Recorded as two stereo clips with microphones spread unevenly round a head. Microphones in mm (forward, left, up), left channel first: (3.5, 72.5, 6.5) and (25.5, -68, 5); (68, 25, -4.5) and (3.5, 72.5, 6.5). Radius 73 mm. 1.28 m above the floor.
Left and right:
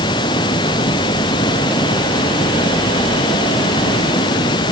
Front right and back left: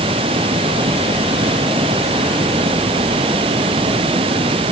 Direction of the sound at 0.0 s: 160° left.